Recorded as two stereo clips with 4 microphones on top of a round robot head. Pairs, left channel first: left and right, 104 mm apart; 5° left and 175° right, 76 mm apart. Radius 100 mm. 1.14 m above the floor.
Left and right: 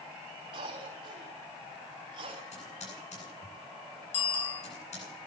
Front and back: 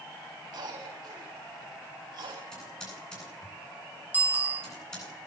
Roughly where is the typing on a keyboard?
Left.